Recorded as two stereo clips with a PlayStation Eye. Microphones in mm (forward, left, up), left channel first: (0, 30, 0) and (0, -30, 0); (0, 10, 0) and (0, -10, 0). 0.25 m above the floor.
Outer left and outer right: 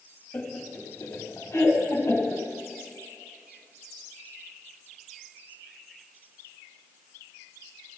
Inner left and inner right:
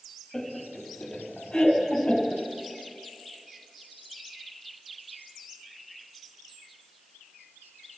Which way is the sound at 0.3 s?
35° left (ahead or behind).